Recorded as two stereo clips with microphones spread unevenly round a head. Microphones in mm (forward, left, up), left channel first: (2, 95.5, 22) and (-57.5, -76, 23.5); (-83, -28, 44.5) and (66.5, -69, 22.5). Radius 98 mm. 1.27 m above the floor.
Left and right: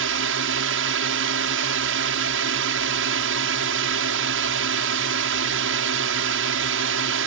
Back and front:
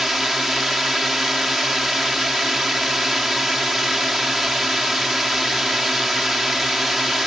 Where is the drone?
105° right.